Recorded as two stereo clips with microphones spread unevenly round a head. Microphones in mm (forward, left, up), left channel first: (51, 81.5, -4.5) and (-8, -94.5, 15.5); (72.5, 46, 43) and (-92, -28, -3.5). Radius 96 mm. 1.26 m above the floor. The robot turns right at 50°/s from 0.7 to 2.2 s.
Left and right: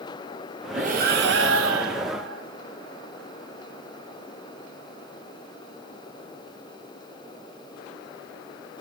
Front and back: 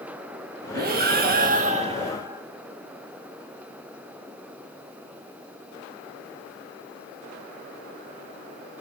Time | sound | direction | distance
0.7 | breathing | 165° right | 0.6 m